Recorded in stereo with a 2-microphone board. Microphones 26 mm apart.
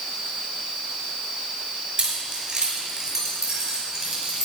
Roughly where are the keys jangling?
Right.